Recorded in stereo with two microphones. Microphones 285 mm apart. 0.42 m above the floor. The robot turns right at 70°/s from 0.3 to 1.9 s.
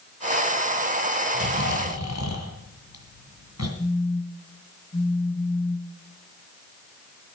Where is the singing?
No singing in this recording.